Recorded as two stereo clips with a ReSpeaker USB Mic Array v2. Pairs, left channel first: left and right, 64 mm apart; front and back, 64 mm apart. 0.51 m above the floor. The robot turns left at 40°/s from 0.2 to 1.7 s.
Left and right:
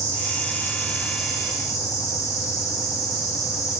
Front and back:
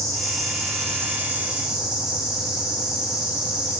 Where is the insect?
165° left, 9 m; by 3.8 s 105° left, 9 m.